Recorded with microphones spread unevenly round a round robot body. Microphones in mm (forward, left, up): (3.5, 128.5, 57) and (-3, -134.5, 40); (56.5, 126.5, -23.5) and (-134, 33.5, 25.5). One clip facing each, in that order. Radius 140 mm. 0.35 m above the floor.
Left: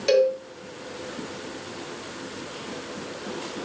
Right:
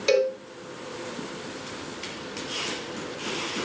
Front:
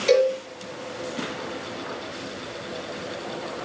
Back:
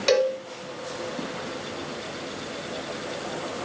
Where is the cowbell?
170° right, 2 m.